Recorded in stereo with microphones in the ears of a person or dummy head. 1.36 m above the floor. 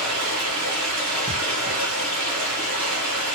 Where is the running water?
45° right (ahead or behind), 3 m.